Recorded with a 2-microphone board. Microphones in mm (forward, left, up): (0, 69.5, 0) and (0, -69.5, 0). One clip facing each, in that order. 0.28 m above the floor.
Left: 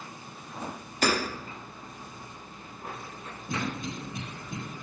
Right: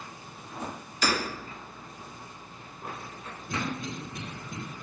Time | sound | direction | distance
1.0 | hammering | 50° left (ahead or behind) | 0.7 m
3.5 | a cough | 15° left (ahead or behind) | 1.7 m